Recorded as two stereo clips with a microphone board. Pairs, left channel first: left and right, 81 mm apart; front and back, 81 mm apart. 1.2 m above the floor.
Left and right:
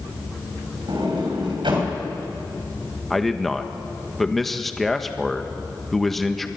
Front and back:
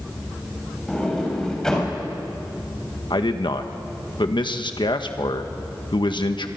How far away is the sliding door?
About 6 m.